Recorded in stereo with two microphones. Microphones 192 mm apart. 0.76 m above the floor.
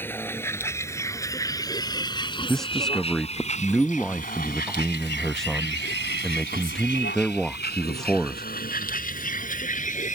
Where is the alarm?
I don't hear an alarm.